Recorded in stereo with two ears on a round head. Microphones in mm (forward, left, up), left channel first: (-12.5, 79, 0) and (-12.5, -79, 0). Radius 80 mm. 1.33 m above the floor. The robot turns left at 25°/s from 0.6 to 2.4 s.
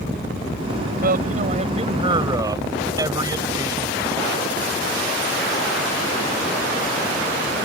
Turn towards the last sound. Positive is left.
turn(degrees=-160)